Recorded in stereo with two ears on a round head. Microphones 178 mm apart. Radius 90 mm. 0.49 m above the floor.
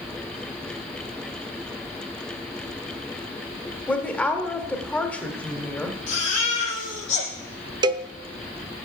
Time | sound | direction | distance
3.9 | a woman speaking | 10° left (ahead or behind) | 1.5 m
6.1 | a baby crying | 35° left (ahead or behind) | 7 m
7.8 | a cowbell | 25° right (ahead or behind) | 0.5 m